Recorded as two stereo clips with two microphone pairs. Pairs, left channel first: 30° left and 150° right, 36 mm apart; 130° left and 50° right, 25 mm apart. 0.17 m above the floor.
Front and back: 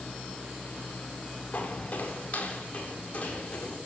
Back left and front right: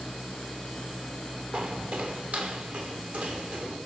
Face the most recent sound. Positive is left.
turn(degrees=-30)